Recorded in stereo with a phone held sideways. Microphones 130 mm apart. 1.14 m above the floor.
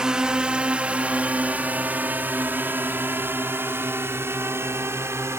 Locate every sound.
0.0 s a drone: 5° right (ahead or behind); by 5.4 s 20° right (ahead or behind)